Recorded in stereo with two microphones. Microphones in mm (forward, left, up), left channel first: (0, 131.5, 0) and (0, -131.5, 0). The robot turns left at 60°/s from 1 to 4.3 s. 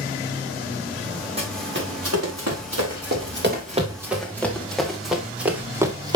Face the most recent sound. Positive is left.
turn(degrees=-15)  # may be behind; listen again after turning